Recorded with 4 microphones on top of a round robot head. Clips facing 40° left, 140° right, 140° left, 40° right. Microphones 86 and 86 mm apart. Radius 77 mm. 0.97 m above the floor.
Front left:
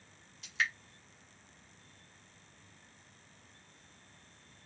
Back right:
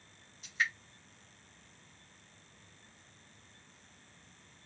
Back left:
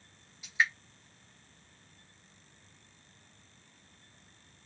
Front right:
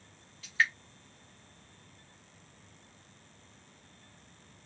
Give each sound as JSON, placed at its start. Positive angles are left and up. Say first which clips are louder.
{"t": 0.4, "sound": "dripping", "louder": "even, even", "azimuth_deg": 65, "distance_m": 0.9}